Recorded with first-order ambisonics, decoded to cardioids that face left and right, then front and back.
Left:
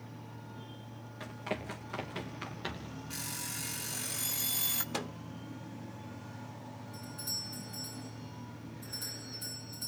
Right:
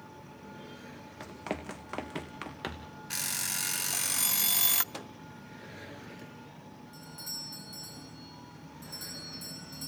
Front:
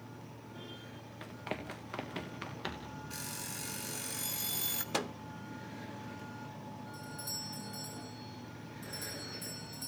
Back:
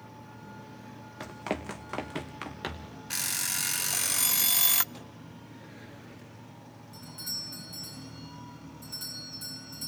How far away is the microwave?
About 0.6 m.